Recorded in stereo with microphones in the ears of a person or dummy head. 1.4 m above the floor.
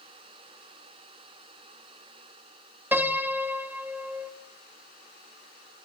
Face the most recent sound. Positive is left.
turn(degrees=-5)  # may be behind; listen again after turning